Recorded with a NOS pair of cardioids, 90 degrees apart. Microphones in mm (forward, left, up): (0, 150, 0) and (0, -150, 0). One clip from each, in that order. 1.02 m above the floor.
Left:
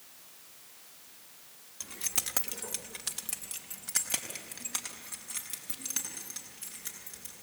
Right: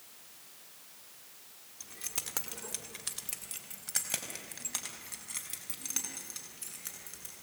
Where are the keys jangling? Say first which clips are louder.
Left 5 dB; 40° left, 1.6 m; by 7.3 s 10° right, 9 m.